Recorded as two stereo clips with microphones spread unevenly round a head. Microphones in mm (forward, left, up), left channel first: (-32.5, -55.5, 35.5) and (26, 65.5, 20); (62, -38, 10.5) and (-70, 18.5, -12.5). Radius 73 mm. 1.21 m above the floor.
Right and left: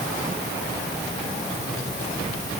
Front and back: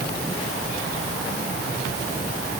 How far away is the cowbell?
I don't hear a cowbell.